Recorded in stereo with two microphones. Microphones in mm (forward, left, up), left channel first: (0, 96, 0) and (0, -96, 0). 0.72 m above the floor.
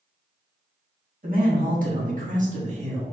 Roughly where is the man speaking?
Right.